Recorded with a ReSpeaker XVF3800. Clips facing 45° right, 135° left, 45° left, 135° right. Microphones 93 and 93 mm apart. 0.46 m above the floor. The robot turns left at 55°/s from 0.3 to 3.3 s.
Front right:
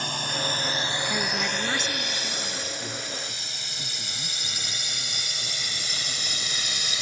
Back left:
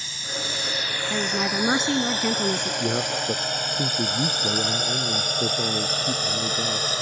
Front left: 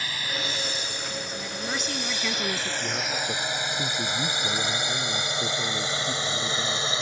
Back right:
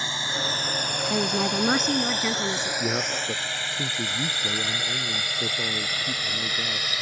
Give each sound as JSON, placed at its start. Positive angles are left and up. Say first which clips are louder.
{"t": 0.0, "sound": "a drone", "louder": "front right 4 dB, back right 2 dB", "azimuth_deg": -70}
{"t": 1.1, "sound": "a woman speaking", "louder": "back left 7 dB, back right 9 dB", "azimuth_deg": -145}
{"t": 2.8, "sound": "a man speaking", "louder": "back left 10 dB, back right 2 dB", "azimuth_deg": 170}